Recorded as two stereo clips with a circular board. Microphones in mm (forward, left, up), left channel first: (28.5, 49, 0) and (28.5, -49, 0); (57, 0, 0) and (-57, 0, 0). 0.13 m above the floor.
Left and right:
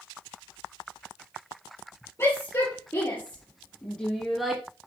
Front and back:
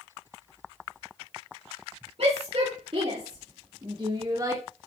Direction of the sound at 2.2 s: 150° left.